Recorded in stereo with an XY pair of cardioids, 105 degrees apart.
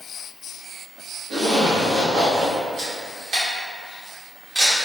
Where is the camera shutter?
60° right, 1.4 m.